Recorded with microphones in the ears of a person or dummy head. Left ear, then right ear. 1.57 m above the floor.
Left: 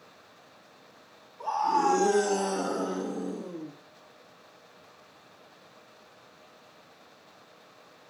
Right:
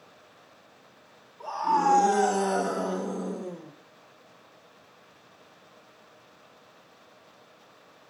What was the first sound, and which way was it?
A scream, centre (ahead or behind).